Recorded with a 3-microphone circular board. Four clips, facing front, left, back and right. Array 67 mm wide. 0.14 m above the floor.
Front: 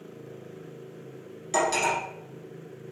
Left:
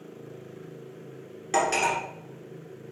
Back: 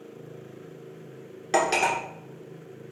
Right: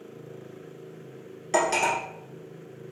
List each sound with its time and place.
1.5 s cutlery clinking: 175° left, 1.4 m